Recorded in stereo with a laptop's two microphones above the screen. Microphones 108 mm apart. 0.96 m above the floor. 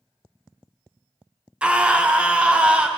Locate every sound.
1.6 s a scream: 10° right (ahead or behind), 0.5 m